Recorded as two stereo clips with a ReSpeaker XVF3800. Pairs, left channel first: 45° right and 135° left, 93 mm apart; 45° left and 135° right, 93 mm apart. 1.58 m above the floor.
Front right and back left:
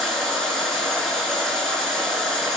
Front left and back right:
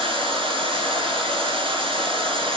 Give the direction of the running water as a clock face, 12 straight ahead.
4 o'clock.